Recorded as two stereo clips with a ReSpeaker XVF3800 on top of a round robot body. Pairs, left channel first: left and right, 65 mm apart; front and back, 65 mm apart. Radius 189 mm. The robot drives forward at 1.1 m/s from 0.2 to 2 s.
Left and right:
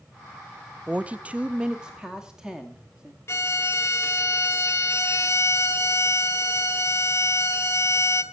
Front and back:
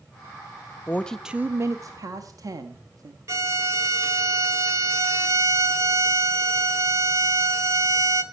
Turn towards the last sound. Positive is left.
turn(degrees=140)